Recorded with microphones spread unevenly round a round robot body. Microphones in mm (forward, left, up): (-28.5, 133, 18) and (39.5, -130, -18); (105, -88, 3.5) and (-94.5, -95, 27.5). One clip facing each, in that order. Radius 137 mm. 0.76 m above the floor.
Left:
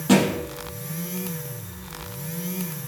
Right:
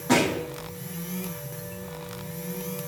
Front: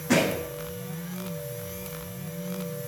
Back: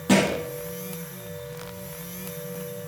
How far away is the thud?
About 4 m.